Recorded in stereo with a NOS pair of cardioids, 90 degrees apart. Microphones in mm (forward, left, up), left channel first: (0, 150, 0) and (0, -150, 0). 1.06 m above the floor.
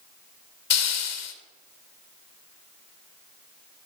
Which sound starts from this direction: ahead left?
A hiss, at 0.7 s.